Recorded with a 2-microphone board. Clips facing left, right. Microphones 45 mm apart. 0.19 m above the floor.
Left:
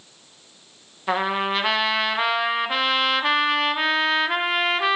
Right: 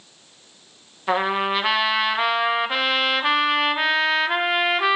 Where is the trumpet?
5° right (ahead or behind), 0.7 m.